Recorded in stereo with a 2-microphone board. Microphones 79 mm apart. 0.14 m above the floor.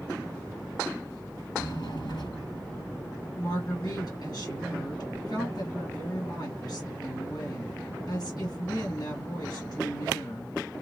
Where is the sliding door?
60° left (ahead or behind), 2 m.